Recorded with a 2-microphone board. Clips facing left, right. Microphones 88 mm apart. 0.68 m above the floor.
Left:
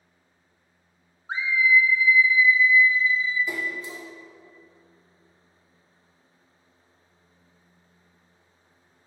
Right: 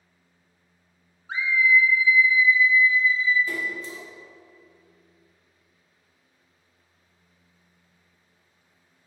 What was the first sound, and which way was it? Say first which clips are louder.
A scream: even; 30° left (ahead or behind).